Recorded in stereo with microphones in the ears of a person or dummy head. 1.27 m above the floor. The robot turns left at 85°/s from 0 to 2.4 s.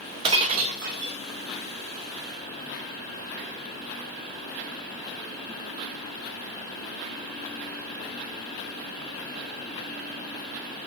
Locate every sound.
0.2 s breaking glass: 40° right, 0.6 m; by 1.2 s 115° right, 0.6 m